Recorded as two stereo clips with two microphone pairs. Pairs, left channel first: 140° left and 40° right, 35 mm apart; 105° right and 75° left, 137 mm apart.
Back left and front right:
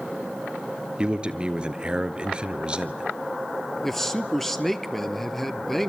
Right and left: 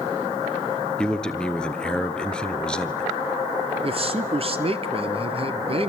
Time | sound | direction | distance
1.0 | a man speaking | 30° right | 1.2 m
3.8 | a man speaking | 60° left | 1.4 m